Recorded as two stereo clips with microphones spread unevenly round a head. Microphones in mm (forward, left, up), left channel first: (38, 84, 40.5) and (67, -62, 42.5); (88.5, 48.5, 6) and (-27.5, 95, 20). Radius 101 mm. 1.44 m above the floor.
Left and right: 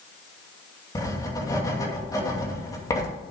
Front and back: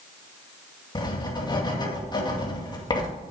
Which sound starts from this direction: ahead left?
Writing, at 0.9 s.